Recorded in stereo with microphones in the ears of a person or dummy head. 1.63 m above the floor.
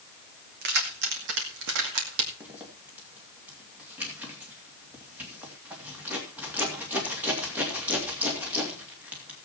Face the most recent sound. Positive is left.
turn(degrees=-5)  # may be behind; listen again after turning